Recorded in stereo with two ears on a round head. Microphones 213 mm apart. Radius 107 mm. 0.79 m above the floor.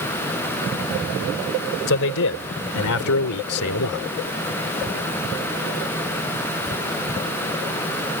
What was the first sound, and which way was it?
A man speaking, 55° left (ahead or behind).